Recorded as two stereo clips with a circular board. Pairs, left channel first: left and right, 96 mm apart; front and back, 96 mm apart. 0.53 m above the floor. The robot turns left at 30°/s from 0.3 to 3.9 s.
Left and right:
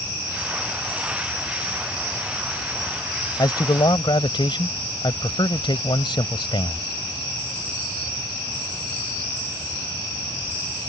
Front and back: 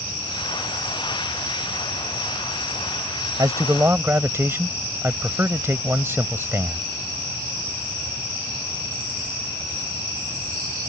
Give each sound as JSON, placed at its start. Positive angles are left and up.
{"t": 3.4, "sound": "a man speaking", "azimuth_deg": 130}